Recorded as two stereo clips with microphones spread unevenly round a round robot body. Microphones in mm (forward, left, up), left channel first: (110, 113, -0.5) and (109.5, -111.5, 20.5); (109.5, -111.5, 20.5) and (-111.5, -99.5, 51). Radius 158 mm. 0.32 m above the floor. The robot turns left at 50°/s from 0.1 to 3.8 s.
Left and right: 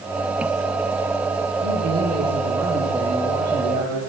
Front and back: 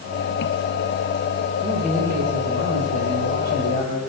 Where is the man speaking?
110° right, 9.5 m; by 4.0 s 140° left, 9.5 m.